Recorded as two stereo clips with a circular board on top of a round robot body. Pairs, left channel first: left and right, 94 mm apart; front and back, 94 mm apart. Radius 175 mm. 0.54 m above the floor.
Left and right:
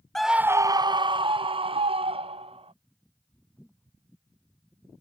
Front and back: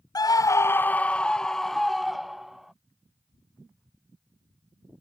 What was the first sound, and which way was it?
A scream, 5° left.